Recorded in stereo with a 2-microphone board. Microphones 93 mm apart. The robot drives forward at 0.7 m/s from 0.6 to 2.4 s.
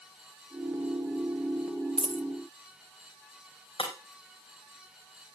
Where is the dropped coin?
60° right (ahead or behind), 0.5 m; by 2.2 s 80° right, 0.5 m.